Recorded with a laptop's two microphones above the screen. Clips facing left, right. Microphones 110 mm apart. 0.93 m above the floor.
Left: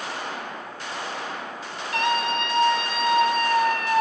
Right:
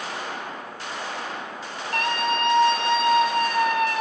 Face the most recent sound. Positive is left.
turn(degrees=-15)  # may be behind; listen again after turning